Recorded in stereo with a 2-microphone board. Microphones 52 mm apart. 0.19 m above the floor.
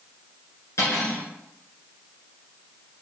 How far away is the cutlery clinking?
About 1.7 m.